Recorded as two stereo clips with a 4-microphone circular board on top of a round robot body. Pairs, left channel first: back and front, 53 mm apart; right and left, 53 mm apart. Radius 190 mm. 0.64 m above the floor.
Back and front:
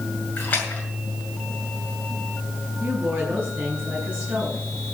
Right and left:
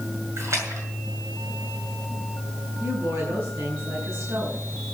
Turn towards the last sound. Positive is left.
turn(degrees=65)